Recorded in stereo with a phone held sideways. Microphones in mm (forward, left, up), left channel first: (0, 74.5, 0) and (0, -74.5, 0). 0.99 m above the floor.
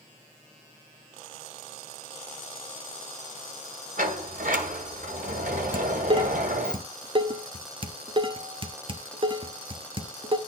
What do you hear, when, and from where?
4.0 s a sliding door: 65° right (ahead or behind), 1.7 m
5.7 s dishes clattering: 35° right (ahead or behind), 0.9 m